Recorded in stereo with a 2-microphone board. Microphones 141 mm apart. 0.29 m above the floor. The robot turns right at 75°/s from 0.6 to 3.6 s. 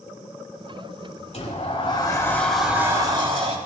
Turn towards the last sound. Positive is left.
turn(degrees=-100)